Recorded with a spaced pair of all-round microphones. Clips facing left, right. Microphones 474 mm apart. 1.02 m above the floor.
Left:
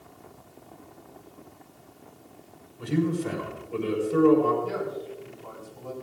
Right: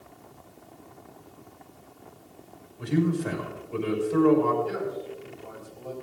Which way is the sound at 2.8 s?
Centre (ahead or behind).